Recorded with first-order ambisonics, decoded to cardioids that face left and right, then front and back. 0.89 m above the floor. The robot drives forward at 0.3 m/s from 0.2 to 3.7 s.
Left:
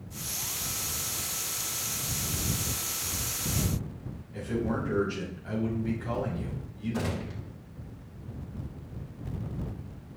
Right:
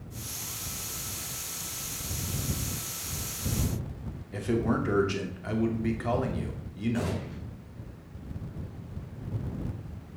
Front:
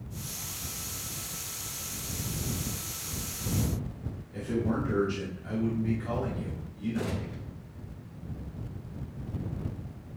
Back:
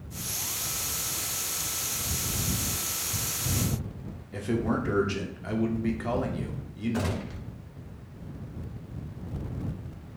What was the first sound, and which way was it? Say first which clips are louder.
A man speaking: right 3 dB, back 2 dB; 125° right.